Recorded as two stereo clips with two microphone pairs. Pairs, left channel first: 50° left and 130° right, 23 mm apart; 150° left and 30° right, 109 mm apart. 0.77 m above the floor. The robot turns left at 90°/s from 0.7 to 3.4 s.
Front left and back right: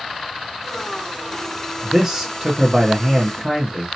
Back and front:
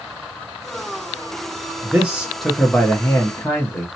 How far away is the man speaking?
About 0.9 m.